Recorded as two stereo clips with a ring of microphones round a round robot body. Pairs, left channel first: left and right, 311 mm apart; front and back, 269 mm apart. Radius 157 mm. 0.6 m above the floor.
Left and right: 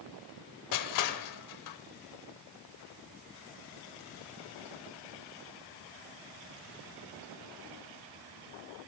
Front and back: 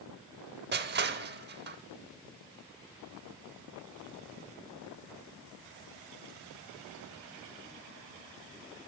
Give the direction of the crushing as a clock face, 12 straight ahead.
8 o'clock.